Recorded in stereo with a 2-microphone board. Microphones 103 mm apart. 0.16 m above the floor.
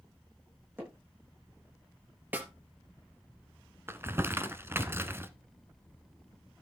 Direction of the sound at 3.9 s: 25° right (ahead or behind).